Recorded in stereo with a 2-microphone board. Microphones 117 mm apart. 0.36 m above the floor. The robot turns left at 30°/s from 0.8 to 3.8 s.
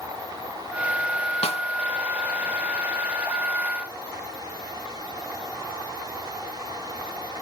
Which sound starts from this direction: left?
A snare drum, at 1.4 s.